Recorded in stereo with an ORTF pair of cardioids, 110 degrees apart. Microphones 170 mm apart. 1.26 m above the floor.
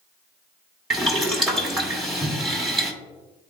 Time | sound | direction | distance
0.9 | boiling | straight ahead | 1.9 m